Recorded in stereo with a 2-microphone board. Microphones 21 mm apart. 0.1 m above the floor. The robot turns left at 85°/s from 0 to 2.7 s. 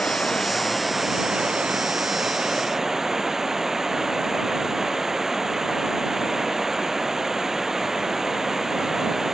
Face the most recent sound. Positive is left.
turn(degrees=-155)